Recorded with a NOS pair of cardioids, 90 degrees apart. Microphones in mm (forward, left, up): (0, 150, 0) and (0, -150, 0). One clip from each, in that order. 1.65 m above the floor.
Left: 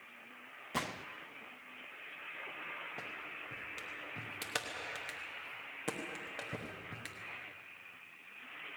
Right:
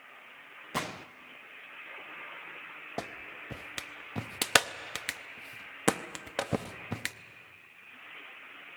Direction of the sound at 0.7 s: 15° right.